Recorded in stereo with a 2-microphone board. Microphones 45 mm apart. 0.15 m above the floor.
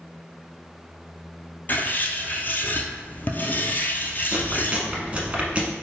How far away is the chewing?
About 0.9 m.